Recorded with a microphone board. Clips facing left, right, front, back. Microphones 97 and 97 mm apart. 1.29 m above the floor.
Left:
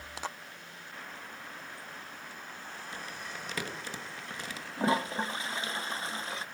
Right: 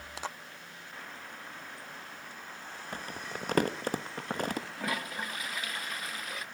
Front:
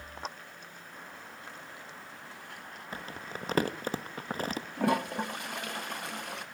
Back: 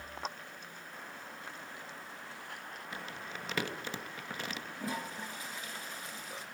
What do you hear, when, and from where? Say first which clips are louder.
2.9 s crumpling: right 4 dB, front 4 dB; 50° right, 1.1 m
4.8 s a toilet flushing: left 6 dB, front 12 dB; 25° left, 0.9 m